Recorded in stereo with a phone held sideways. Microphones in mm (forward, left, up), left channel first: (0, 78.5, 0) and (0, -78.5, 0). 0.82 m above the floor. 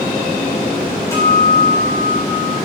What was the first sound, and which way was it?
A guitar, 20° left (ahead or behind).